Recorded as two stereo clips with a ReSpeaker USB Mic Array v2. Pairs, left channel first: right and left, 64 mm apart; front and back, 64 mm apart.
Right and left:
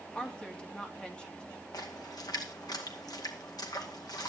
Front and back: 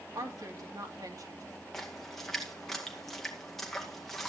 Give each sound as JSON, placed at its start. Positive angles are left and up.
{"t": 0.1, "sound": "a woman speaking", "azimuth_deg": -165, "distance_m": 2.5}
{"t": 1.7, "sound": "a splash", "azimuth_deg": -80, "distance_m": 2.0}